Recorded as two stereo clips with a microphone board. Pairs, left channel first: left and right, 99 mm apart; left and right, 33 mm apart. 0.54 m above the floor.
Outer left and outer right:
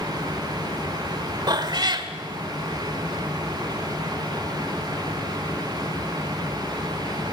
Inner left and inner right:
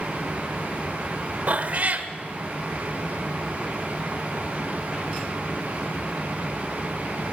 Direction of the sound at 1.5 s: 45° right (ahead or behind).